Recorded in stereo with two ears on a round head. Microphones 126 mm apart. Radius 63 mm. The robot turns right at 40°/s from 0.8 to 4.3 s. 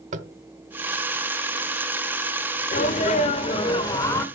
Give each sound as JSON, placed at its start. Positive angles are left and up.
{"t": 0.1, "sound": "tapping", "side_deg": -50, "distance_m": 0.9}
{"t": 2.7, "sound": "a sneeze", "azimuth_deg": 100, "distance_m": 1.3}